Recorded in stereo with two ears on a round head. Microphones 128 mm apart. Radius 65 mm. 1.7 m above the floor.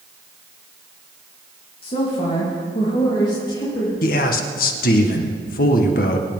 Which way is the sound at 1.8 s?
40° left (ahead or behind).